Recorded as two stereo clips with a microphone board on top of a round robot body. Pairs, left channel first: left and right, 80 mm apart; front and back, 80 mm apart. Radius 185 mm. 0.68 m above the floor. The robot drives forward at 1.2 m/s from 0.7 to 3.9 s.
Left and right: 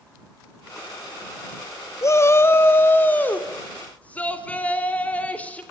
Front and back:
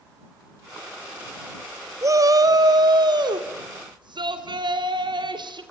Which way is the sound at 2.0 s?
135° left.